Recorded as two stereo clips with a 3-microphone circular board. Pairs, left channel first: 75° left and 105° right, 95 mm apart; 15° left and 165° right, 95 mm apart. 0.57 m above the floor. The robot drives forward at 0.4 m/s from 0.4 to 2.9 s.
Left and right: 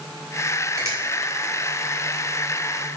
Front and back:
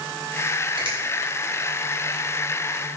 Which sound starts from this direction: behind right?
A finger snap, at 0.8 s.